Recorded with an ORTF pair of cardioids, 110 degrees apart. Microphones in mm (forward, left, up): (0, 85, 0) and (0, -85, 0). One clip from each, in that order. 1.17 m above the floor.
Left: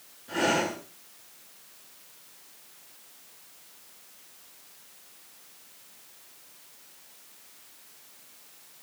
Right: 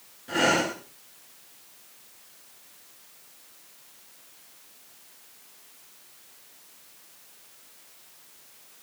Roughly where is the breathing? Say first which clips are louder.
Right 3 dB; ahead right.